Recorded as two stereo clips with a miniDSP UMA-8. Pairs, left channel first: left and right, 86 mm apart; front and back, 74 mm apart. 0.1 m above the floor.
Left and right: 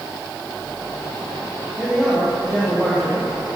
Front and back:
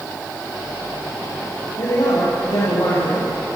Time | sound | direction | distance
1.8 | a man speaking | 5° left | 7 m